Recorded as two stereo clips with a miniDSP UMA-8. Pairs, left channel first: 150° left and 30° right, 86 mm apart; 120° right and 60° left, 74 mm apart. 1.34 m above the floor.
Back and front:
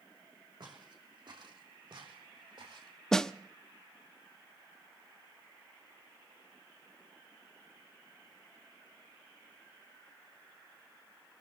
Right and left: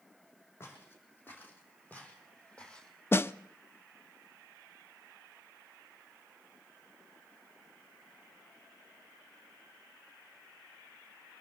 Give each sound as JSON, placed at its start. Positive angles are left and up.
{"t": 0.6, "sound": "footsteps", "azimuth_deg": -60, "distance_m": 4.0}
{"t": 3.1, "sound": "a snare drum", "azimuth_deg": -135, "distance_m": 0.5}